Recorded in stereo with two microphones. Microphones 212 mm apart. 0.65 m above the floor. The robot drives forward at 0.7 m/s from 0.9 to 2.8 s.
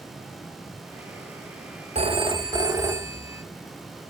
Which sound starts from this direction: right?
A phone ringing, at 1.9 s.